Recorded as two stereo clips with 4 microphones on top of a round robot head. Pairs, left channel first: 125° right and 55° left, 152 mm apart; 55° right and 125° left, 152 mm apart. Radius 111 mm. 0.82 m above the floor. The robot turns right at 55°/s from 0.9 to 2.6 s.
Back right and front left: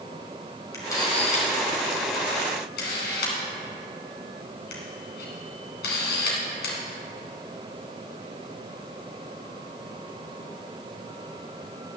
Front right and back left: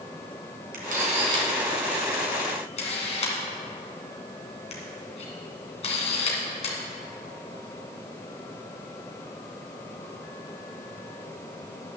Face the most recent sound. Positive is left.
turn(degrees=-105)